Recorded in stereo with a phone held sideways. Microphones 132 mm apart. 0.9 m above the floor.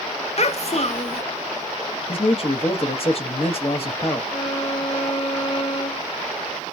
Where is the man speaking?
45° left (ahead or behind), 1.0 m.